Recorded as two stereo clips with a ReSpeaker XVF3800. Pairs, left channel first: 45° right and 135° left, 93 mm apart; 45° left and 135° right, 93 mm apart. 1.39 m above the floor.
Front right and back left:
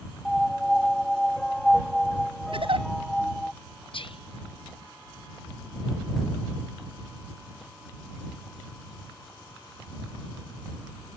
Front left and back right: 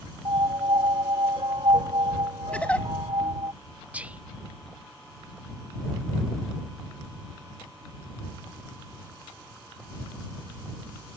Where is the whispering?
60° right.